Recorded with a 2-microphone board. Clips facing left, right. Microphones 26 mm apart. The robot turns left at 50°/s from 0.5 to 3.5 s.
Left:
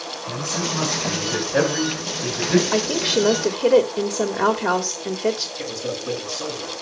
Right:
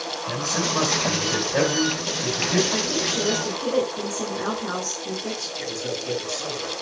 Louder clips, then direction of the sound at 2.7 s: Left 4 dB; 120° left.